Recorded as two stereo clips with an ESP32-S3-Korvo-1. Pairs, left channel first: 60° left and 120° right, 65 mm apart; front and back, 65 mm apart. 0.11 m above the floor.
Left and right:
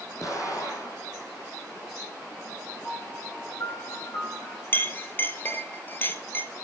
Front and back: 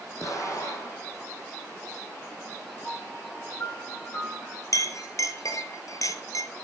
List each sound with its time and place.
0.2 s an explosion: 30° left, 4.5 m
2.8 s a piano: 40° left, 9.5 m
4.7 s a clink: 10° left, 1.6 m